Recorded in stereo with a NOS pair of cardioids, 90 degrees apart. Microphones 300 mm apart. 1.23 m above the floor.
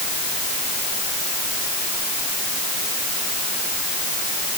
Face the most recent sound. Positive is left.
No sound to turn to.